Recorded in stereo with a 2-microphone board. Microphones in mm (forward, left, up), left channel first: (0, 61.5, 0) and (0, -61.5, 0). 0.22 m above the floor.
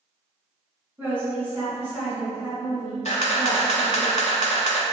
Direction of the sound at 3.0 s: 65° left (ahead or behind).